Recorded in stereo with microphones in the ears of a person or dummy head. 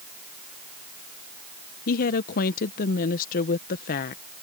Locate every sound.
1.9 s a woman speaking: 50° left (ahead or behind)